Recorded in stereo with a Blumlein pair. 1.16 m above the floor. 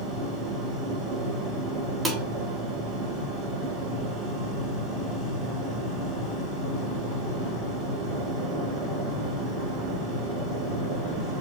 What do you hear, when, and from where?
0.0 s a machine running: 25° right, 3 m
2.0 s dishes clattering: 15° right, 1.5 m